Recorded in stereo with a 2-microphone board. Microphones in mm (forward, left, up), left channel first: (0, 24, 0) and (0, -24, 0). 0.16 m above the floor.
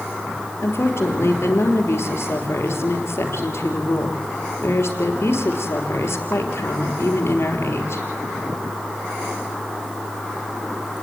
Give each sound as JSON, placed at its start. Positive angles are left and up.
{"t": 0.6, "sound": "a woman speaking", "side_deg": 60, "distance_m": 3.0}